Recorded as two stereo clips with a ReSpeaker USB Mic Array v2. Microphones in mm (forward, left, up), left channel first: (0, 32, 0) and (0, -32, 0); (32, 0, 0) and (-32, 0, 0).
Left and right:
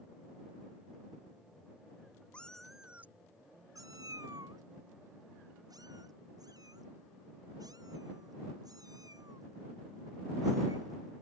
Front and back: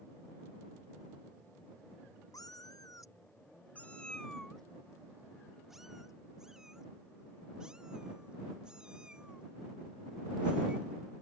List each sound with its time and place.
2.3 s a cat meowing: 20° left; by 11.2 s 105° right